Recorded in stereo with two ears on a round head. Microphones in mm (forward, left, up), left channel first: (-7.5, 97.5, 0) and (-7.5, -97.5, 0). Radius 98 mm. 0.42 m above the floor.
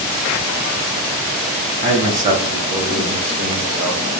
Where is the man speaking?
35° right (ahead or behind), 1.5 m; by 4.2 s 5° right (ahead or behind), 0.9 m.